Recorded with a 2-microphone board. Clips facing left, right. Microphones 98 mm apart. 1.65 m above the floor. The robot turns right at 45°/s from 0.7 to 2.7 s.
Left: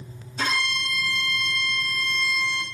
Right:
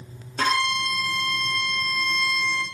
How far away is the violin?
About 2.0 m.